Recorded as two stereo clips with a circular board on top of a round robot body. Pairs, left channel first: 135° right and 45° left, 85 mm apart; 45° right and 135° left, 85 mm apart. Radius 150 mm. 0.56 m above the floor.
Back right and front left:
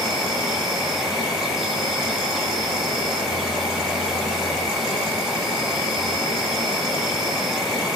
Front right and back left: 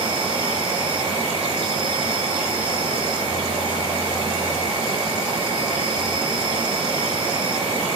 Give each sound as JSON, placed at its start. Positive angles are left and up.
{"t": 0.0, "sound": "an insect", "azimuth_deg": 130, "distance_m": 0.8}